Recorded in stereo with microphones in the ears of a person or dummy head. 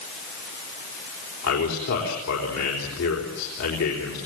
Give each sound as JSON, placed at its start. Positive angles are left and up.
{"t": 1.4, "sound": "a man speaking", "side_deg": 80, "distance_m": 5.0}